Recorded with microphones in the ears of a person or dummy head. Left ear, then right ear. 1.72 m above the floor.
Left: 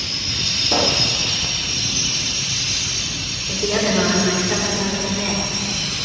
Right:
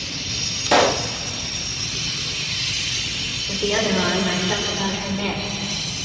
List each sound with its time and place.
0.7 s a pop: 40° right (ahead or behind), 0.7 m
3.5 s a woman speaking: 20° right (ahead or behind), 6 m